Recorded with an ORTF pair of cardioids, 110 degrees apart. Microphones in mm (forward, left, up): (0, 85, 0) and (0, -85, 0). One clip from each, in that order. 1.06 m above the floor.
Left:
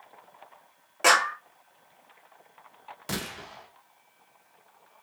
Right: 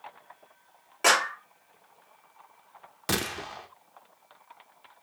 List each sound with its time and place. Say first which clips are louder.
1.0 s a clap: left 2 dB; 5° left, 2.0 m
3.1 s a gunshot: right 5 dB; 35° right, 0.7 m